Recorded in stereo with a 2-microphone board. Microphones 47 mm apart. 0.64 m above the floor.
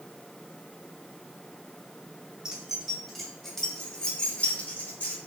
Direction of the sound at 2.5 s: 15° right (ahead or behind).